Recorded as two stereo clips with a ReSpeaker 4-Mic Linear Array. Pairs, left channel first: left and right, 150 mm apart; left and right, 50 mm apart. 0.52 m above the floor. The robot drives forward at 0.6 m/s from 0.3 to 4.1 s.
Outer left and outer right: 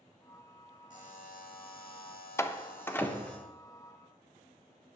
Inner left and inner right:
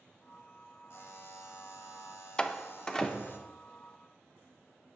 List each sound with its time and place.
0.9 s a buzzer: 55° left (ahead or behind), 1.3 m; by 3.4 s 50° left (ahead or behind), 1.4 m
2.4 s a door slam: 20° left (ahead or behind), 0.5 m; by 3.5 s 10° left (ahead or behind), 0.9 m